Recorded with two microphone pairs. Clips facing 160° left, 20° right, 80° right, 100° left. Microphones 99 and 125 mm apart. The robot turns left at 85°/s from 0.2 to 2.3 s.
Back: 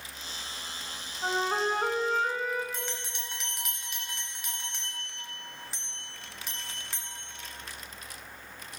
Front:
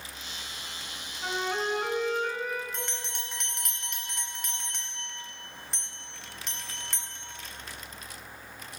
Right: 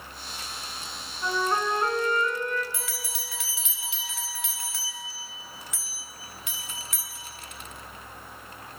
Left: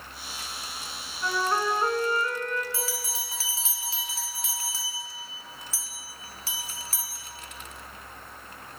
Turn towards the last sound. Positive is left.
turn(degrees=80)